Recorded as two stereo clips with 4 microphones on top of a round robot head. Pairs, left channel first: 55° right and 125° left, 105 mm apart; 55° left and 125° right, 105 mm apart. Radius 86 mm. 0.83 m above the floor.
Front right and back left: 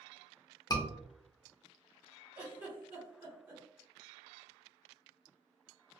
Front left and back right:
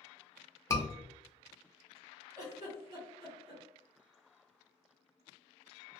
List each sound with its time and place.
0.7 s a scream: 5° right, 0.7 m
2.4 s a giggle: straight behind, 1.5 m